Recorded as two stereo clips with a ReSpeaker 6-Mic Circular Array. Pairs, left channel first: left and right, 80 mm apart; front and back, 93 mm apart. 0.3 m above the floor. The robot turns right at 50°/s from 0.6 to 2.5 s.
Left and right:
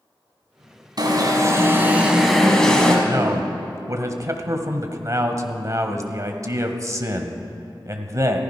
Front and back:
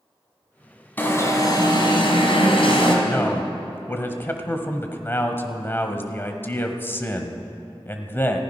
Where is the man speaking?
60° right, 1.3 m.